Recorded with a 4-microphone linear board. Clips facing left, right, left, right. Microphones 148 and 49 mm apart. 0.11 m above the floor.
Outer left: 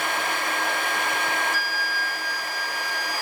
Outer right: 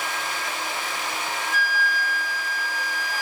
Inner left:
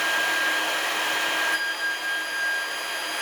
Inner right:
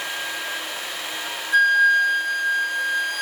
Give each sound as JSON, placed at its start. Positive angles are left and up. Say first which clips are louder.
{"t": 1.5, "sound": "a flute", "louder": "outer right 3 dB, inner right 11 dB", "side_deg": -50, "distance_m": 2.0}